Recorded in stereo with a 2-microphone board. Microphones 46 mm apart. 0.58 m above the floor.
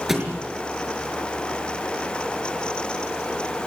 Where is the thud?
5° right (ahead or behind), 5 m.